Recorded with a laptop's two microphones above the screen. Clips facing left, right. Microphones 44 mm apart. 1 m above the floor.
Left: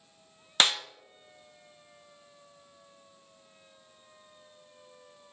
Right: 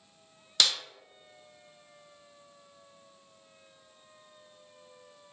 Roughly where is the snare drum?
Left.